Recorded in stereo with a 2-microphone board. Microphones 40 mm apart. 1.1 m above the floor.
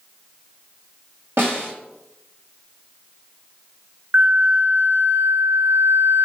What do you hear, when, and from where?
1.4 s a snare drum: 80° right, 2.5 m
4.1 s a flute: 80° right, 0.6 m